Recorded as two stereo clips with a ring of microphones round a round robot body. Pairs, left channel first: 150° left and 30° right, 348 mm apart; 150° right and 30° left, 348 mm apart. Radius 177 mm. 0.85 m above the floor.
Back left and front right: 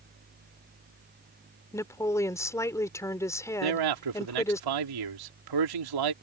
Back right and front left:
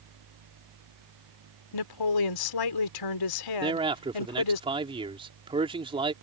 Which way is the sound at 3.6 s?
45° right.